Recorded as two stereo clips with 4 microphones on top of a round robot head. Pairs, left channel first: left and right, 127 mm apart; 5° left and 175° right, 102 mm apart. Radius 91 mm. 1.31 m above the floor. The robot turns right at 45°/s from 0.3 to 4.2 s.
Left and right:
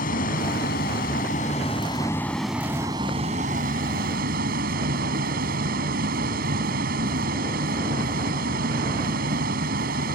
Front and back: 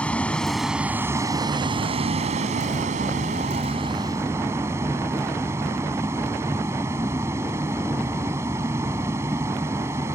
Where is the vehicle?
85° left; by 10.2 s 100° right.